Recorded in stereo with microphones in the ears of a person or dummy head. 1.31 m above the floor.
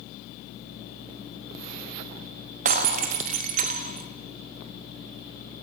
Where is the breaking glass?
45° right (ahead or behind), 1.0 m.